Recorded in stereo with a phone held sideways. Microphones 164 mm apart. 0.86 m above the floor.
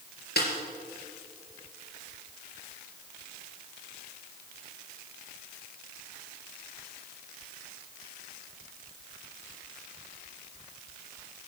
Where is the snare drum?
80° left, 3.5 m.